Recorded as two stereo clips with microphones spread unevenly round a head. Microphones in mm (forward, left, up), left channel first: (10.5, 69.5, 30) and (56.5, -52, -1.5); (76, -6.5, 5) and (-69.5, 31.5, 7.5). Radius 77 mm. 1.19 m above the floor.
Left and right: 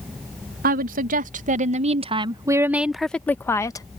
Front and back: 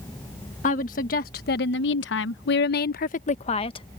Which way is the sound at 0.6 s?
60° right.